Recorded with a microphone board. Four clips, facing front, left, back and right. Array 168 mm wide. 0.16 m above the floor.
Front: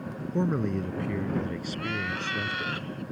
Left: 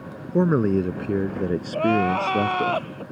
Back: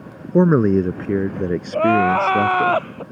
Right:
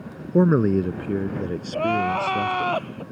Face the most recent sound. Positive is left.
turn(degrees=180)